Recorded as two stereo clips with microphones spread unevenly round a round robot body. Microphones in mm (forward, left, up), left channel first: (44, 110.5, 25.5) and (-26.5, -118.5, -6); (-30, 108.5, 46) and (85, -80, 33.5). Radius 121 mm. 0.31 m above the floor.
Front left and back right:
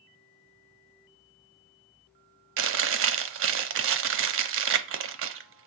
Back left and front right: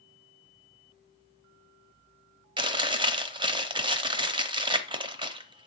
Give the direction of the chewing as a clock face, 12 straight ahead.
4 o'clock.